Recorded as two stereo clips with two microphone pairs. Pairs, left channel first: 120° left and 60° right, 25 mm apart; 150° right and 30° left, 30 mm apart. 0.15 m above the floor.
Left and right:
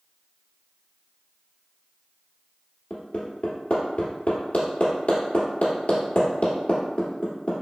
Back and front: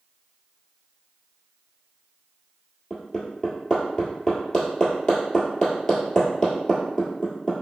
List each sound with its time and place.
2.9 s hammering: 140° left, 1.4 m